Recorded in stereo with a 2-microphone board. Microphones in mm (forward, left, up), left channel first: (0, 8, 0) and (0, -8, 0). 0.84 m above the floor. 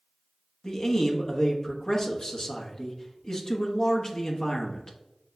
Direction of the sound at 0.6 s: 50° left (ahead or behind).